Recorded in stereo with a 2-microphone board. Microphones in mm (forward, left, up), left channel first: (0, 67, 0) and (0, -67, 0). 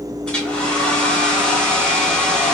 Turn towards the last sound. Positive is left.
turn(degrees=5)  # may be behind; listen again after turning